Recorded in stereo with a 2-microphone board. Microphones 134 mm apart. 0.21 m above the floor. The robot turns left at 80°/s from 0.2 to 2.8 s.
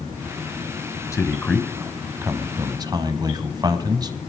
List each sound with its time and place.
1.1 s a man speaking: 20° left (ahead or behind), 1.1 m; by 4.2 s 30° right (ahead or behind), 1.1 m